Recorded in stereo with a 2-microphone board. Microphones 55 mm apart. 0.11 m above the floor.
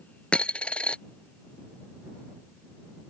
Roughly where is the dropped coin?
Left.